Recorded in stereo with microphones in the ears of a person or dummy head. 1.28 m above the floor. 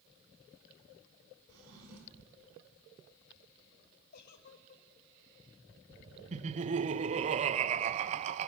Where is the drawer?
85° right, 6.5 m.